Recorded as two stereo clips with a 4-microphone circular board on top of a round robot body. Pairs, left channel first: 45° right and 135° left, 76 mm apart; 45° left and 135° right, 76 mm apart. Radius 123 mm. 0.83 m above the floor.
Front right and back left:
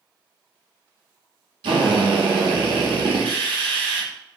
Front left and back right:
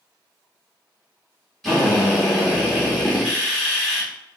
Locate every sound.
1.6 s a drill: 135° left, 0.7 m